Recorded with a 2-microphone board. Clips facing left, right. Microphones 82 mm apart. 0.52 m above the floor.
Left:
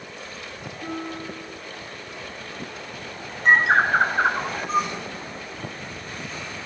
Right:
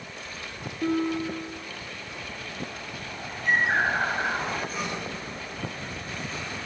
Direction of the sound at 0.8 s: 75° right (ahead or behind).